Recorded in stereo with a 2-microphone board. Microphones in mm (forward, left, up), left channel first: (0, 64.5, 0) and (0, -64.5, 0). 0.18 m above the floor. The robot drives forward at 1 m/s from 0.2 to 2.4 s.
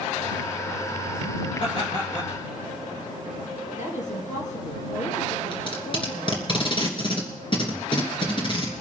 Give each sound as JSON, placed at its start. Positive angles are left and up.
{"t": 1.6, "sound": "laughter", "side_deg": 40, "distance_m": 3.0}
{"t": 3.8, "sound": "a woman speaking", "side_deg": 65, "distance_m": 2.5}
{"t": 5.5, "sound": "tape being pulled", "side_deg": 40, "distance_m": 3.0}